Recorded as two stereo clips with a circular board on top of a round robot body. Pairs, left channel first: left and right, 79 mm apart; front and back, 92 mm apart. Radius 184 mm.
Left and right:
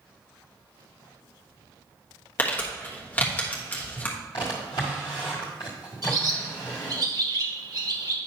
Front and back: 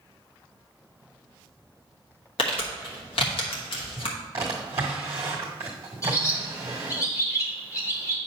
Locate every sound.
2.4 s crumpling: 20° left, 1.3 m
4.3 s a drawer: 125° left, 0.9 m
6.0 s a bird: 55° right, 1.8 m